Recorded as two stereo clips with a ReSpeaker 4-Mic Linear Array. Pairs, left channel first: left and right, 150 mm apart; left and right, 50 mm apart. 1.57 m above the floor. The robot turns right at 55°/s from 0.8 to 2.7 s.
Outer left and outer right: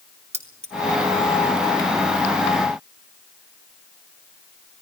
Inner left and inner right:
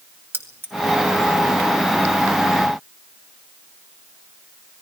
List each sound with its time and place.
0.3 s keys jangling: 45° right (ahead or behind), 2.5 m